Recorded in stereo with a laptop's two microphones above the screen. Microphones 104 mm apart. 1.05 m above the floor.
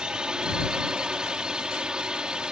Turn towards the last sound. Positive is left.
turn(degrees=-10)  # may be behind; listen again after turning